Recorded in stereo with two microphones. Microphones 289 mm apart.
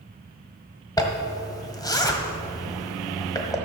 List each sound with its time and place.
1.0 s a zipper: 10° left (ahead or behind), 1.3 m